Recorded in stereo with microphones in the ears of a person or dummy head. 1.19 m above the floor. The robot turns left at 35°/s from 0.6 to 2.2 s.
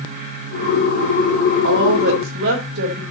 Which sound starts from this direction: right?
A woman speaking, at 1.6 s.